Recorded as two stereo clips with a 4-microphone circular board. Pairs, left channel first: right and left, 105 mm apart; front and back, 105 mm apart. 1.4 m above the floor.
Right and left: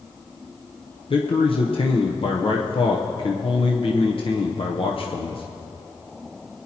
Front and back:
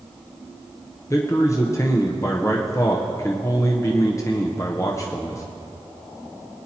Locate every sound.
1.1 s a man speaking: 60° right, 0.8 m